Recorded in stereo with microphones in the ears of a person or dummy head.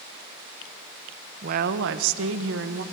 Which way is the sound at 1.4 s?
45° right (ahead or behind).